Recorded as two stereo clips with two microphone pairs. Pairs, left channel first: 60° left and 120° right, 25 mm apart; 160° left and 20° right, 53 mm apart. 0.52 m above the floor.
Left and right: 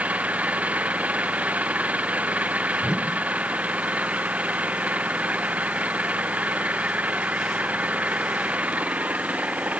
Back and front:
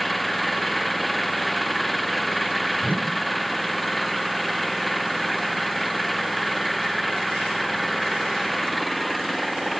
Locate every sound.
0.0 s an engine running: 110° right
2.8 s a whoosh: 70° right